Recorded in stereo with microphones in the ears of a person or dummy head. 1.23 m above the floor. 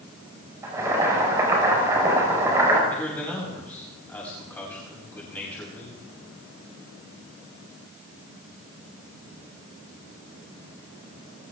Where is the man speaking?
10° left (ahead or behind), 7.5 m.